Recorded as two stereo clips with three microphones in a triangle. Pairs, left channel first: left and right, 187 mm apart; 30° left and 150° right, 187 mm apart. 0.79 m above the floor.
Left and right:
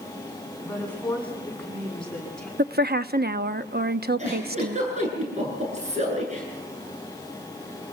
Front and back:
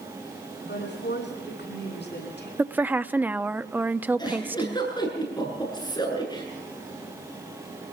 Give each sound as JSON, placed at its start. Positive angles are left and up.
{"t": 0.6, "sound": "a woman speaking", "azimuth_deg": 10, "distance_m": 8.5}
{"t": 2.6, "sound": "a woman speaking", "azimuth_deg": -70, "distance_m": 0.8}
{"t": 4.2, "sound": "a giggle", "azimuth_deg": -40, "distance_m": 9.0}